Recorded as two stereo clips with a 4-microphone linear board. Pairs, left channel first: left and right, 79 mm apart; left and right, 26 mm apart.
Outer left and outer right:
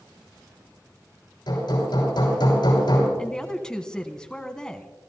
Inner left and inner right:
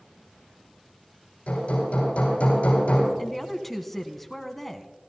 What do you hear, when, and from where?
1.5 s hammering: 65° left (ahead or behind), 9 m
3.2 s a woman speaking: 10° left (ahead or behind), 1.2 m